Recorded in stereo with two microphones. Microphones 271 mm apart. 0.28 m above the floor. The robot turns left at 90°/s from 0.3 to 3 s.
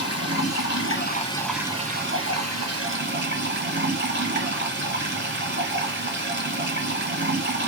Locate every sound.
0.0 s running water: 110° left, 1.8 m; by 7.7 s 130° right, 1.8 m